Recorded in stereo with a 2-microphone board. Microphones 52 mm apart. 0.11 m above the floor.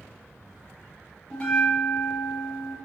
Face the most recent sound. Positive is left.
turn(degrees=25)  # may be behind; listen again after turning